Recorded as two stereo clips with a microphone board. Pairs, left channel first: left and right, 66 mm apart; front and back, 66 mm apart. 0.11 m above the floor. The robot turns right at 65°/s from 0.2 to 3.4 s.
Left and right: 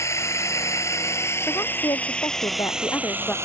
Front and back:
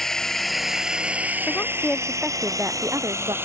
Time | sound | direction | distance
0.0 | a drone | 85° left | ?
1.5 | a woman speaking | 40° left | ?